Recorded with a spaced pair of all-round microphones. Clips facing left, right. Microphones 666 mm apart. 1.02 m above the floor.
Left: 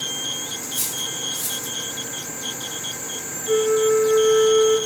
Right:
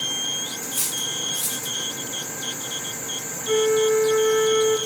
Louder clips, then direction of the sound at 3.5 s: Left 1 dB; 80° right.